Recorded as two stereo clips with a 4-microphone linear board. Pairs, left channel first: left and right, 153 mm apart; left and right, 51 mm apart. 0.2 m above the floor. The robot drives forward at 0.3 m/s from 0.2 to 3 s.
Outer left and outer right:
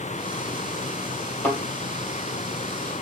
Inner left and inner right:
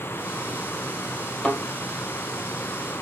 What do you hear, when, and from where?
1.4 s a thud: 15° left (ahead or behind), 2.5 m